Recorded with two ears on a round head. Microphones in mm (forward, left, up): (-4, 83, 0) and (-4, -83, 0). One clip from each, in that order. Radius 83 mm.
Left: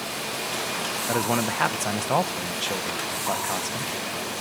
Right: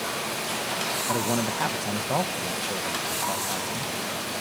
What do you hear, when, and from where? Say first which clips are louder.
1.1 s a man speaking: left 5 dB; 40° left (ahead or behind), 1.4 m